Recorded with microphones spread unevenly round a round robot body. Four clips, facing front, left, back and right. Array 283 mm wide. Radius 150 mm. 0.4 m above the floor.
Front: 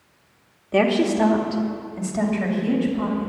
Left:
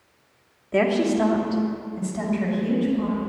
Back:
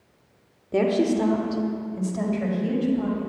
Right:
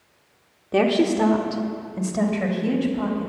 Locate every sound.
0.7 s a woman speaking: 100° right, 1.4 m; by 3.3 s 70° right, 3.5 m